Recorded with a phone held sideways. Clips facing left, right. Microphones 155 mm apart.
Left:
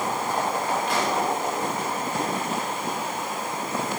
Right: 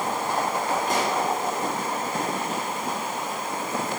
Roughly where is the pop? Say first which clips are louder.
Even; right.